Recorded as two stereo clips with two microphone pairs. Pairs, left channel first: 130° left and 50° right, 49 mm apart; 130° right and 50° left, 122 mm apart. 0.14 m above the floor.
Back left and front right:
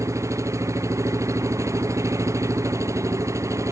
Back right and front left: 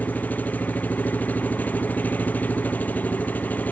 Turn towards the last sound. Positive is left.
turn(degrees=-50)